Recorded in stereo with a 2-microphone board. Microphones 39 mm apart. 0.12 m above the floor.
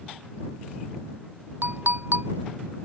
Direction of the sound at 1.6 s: 60° right (ahead or behind).